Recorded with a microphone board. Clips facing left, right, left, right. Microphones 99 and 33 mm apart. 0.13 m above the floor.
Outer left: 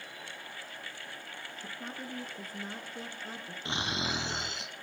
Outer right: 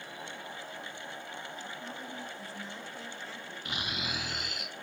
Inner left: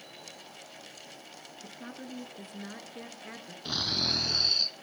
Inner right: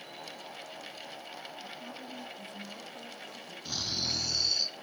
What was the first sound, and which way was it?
A woman speaking, 50° left (ahead or behind).